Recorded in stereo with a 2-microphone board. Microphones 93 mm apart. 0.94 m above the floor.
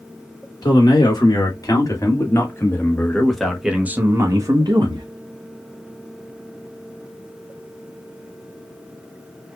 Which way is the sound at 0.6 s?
50° left (ahead or behind).